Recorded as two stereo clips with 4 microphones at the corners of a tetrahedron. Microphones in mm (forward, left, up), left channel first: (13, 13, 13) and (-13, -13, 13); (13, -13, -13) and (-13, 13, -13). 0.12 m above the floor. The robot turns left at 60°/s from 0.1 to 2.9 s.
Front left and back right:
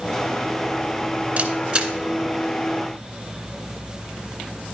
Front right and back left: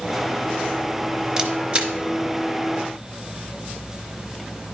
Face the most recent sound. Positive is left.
turn(degrees=105)